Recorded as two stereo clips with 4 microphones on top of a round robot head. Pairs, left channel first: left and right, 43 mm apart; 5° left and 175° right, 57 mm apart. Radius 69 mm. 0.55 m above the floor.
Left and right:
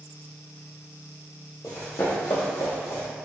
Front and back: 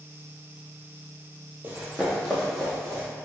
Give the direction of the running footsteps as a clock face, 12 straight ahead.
8 o'clock.